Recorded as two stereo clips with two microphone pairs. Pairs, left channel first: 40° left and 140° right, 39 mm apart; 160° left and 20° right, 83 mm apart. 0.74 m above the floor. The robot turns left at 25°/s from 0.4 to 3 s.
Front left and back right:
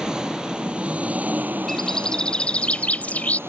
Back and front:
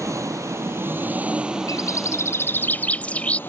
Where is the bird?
120° left; by 3.4 s 90° left.